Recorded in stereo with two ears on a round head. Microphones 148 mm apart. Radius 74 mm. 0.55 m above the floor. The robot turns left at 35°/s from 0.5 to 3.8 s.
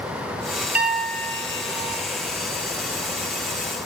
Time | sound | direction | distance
0.8 | a piano | 170° right | 0.7 m